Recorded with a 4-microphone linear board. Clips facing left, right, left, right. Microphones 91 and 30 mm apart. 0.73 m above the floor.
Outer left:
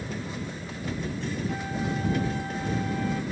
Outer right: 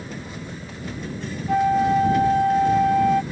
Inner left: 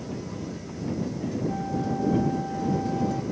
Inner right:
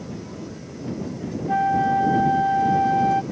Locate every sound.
1.5 s a flute: 70° right (ahead or behind)